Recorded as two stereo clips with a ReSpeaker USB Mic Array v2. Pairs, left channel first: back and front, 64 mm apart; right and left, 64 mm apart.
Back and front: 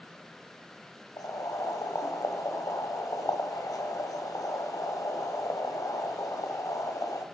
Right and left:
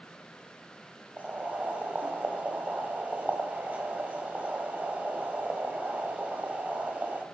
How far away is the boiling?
About 1.4 m.